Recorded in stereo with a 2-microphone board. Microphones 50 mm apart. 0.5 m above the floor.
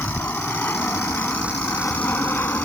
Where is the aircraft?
40° left (ahead or behind); by 2.6 s 45° left (ahead or behind).